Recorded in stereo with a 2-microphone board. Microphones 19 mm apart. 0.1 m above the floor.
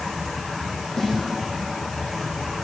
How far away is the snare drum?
About 5 m.